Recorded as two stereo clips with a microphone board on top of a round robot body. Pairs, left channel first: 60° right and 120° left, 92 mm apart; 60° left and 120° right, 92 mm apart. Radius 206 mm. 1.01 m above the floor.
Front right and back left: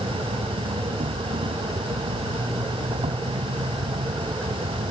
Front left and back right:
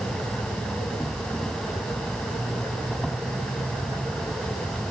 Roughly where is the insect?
Behind left.